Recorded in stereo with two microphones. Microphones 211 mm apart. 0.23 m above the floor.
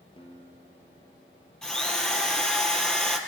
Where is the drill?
Centre (ahead or behind), 2.5 m.